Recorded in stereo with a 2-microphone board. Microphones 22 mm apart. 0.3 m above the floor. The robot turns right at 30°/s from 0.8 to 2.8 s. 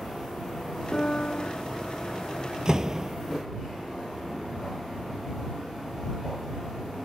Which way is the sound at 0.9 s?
35° left (ahead or behind).